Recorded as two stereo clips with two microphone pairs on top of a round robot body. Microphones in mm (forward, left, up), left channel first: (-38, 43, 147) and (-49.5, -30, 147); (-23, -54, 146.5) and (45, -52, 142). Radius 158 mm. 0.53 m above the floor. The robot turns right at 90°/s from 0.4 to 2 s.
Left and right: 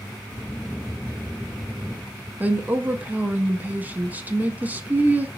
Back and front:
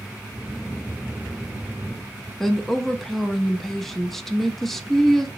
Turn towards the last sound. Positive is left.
turn(degrees=-85)